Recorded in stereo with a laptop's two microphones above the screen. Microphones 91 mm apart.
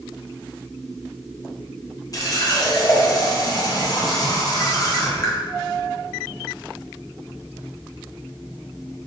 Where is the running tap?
40° left (ahead or behind), 0.5 m.